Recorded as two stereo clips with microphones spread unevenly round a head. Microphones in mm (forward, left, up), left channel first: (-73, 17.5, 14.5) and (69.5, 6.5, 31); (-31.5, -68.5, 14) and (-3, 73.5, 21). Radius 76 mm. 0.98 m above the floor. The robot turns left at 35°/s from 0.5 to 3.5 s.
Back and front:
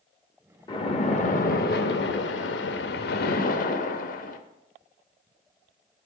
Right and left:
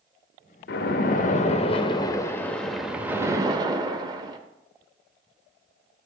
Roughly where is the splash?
Behind right.